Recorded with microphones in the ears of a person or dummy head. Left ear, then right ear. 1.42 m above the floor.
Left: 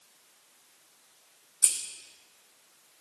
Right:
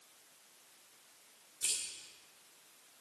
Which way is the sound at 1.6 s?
30° left (ahead or behind).